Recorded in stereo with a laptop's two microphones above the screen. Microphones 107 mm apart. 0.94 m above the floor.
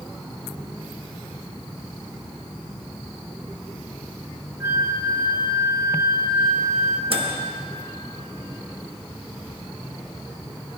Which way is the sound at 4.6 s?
30° right (ahead or behind).